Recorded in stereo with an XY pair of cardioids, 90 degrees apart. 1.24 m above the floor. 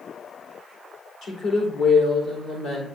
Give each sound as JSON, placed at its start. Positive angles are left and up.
{"t": 1.2, "sound": "a woman speaking", "azimuth_deg": 70, "distance_m": 3.5}